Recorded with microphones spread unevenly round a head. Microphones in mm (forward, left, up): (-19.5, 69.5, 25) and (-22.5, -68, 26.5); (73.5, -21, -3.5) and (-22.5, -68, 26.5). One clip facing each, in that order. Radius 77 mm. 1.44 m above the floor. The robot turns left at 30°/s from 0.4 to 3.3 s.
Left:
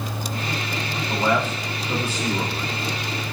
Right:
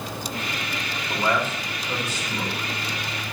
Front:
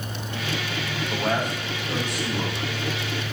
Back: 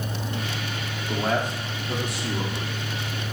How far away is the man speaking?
About 3 m.